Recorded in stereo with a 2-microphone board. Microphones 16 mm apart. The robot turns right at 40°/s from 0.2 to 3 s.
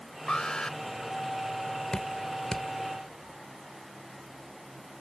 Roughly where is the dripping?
Left.